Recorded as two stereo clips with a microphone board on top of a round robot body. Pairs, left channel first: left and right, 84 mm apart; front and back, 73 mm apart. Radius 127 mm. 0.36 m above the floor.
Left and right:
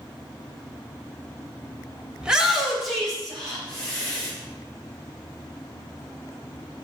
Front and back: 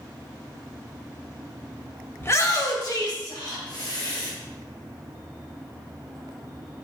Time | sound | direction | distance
2.2 | a shout | 20° right | 1.0 m